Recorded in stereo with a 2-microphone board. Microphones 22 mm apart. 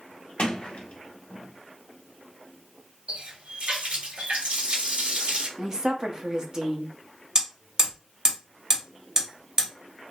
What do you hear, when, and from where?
0.4 s a sliding door: 60° left (ahead or behind), 1.0 m
3.1 s a running tap: 70° right (ahead or behind), 1.7 m
5.6 s a woman speaking: 25° right (ahead or behind), 1.0 m
7.3 s hammering: 25° right (ahead or behind), 2 m